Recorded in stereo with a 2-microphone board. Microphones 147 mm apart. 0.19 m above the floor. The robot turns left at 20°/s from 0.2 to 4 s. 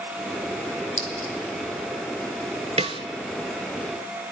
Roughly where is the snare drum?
Right.